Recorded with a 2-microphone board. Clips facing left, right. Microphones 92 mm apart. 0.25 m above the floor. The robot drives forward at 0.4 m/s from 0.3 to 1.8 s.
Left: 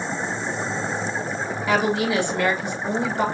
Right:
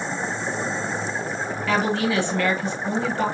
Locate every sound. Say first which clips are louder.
1.7 s a woman speaking: left 1 dB; 15° left (ahead or behind), 1.1 m